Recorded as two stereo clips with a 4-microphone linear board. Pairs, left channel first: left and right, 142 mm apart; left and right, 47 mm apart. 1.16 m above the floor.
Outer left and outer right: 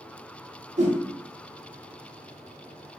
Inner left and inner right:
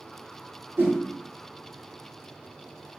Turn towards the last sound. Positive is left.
turn(degrees=-55)  # may be behind; listen again after turning